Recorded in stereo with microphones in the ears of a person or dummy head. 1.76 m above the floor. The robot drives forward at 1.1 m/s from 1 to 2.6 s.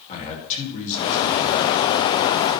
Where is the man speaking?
40° left (ahead or behind), 4 m; by 1.8 s 50° left (ahead or behind), 3 m.